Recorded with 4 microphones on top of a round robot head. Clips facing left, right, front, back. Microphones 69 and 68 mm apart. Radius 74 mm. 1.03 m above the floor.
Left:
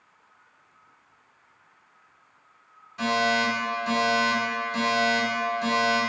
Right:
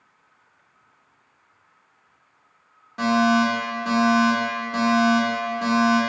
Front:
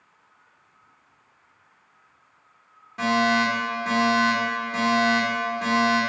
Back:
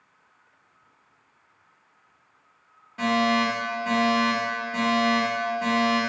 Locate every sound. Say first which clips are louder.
3.0 s a fire alarm: right 5 dB, front 1 dB; 80° right, 3 m